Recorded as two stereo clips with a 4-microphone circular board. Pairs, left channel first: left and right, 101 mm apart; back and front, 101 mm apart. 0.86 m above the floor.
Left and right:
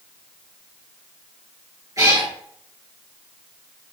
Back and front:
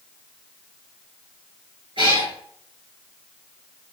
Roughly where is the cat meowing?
Ahead right.